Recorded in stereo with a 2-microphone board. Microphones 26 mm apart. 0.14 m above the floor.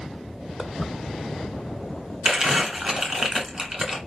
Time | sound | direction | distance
0.6 | footsteps | 10° left (ahead or behind) | 0.8 m
2.2 | crumpling | 20° right (ahead or behind) | 1.4 m